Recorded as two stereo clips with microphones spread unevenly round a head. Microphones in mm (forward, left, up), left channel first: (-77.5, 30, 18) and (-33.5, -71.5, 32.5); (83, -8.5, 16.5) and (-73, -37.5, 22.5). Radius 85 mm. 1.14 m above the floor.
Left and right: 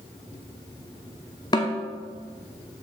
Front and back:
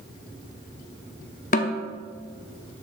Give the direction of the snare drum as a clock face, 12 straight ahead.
10 o'clock.